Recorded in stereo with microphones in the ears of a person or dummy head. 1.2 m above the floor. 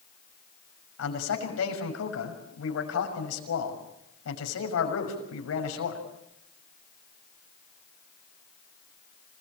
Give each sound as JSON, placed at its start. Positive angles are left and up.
{"t": 1.0, "sound": "a man speaking", "side_deg": 80, "distance_m": 6.0}